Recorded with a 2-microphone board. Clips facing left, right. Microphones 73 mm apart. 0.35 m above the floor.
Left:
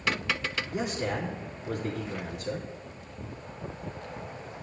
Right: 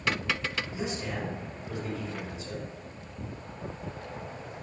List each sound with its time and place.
0.7 s a man speaking: 65° left (ahead or behind), 3 m